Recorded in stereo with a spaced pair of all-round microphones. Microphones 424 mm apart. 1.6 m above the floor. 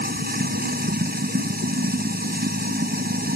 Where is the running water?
20° right (ahead or behind).